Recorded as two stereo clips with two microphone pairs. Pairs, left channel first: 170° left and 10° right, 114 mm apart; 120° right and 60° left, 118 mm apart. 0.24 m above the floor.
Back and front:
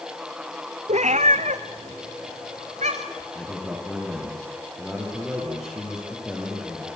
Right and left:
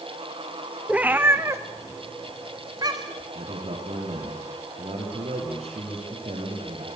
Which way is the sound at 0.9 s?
20° right.